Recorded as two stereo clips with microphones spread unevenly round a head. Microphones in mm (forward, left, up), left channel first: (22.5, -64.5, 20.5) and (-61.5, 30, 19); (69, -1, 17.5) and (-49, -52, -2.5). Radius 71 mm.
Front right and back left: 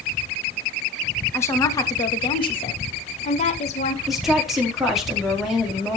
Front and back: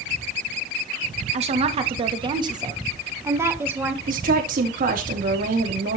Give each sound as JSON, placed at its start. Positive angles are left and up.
{"t": 1.3, "sound": "a woman speaking", "azimuth_deg": -120, "distance_m": 2.5}
{"t": 4.1, "sound": "a woman speaking", "azimuth_deg": -140, "distance_m": 4.5}